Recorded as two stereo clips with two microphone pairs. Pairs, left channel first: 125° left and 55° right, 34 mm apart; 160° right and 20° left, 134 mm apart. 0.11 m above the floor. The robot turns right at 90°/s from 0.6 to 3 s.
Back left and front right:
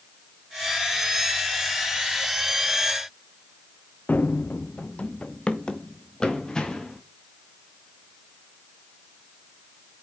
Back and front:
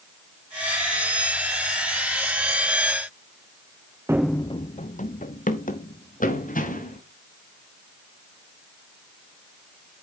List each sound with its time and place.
4.1 s running footsteps: 85° left, 0.5 m; by 7.0 s 160° right, 3.5 m